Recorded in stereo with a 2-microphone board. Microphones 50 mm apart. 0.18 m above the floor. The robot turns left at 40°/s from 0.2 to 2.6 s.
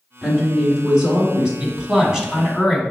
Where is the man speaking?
20° right (ahead or behind), 1.0 m; by 2.8 s 5° right (ahead or behind), 1.0 m.